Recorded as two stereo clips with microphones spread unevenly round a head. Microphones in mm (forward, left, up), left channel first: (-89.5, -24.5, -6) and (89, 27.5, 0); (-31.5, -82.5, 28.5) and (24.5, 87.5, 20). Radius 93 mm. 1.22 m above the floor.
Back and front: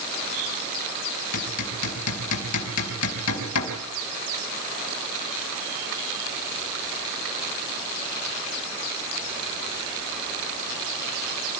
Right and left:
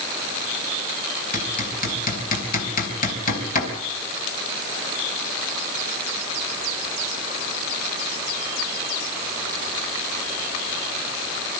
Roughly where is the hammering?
Behind right.